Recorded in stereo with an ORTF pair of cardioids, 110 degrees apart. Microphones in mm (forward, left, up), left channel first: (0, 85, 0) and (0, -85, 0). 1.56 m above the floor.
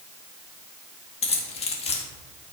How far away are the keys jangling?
About 1.9 m.